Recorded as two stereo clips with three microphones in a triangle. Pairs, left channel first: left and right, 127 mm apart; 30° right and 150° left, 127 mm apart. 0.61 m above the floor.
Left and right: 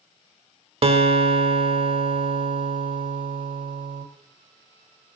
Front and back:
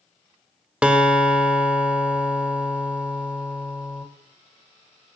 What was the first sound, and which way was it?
A guitar, 130° right.